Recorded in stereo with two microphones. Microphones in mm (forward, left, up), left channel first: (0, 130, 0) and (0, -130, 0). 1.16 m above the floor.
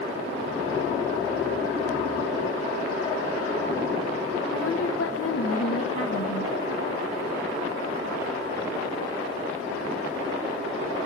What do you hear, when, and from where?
4.5 s a woman speaking: 55° left (ahead or behind), 1.0 m